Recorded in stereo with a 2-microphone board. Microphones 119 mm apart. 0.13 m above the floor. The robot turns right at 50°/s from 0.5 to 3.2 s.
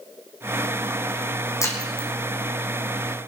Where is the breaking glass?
25° left (ahead or behind), 2.5 m; by 2.1 s 50° left (ahead or behind), 2.5 m.